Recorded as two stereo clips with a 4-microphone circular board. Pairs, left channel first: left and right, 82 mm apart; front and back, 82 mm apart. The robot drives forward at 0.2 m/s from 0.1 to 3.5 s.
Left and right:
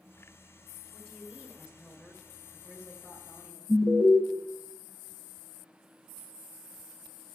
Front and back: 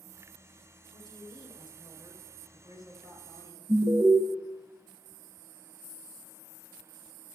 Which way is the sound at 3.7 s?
170° left.